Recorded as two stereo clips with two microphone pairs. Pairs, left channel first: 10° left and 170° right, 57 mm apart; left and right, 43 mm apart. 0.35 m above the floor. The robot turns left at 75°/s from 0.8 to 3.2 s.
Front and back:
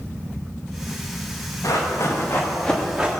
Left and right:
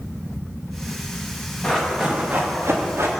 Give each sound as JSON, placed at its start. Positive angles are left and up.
{"t": 1.6, "sound": "running footsteps", "azimuth_deg": 25, "distance_m": 5.5}